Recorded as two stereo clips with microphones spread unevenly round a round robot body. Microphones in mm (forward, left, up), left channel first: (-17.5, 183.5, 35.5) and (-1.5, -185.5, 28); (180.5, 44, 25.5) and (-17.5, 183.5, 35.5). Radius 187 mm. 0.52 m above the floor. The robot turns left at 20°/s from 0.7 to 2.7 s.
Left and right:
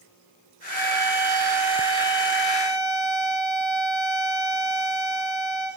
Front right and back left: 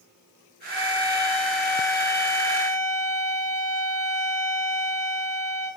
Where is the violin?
125° right, 7 m; by 5.7 s 165° right, 7 m.